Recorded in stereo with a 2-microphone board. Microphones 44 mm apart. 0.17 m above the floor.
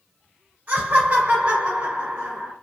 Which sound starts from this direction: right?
Laughter, at 0.7 s.